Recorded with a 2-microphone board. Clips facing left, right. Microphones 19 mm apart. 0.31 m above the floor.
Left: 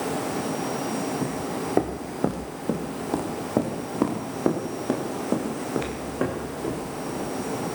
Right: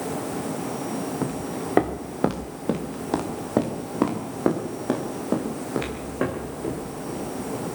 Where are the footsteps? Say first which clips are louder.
Even; 70° right (ahead or behind), 2.5 m; by 7.6 s 5° right (ahead or behind), 8 m.